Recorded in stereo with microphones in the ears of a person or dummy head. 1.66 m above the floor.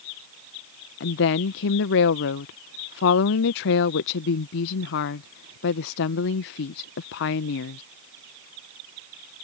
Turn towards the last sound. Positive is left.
turn(degrees=55)  # may be behind; listen again after turning